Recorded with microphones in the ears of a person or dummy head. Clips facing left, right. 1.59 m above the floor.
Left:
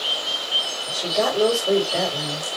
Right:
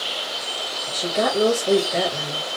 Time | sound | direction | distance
0.9 | a woman speaking | centre (ahead or behind) | 3 m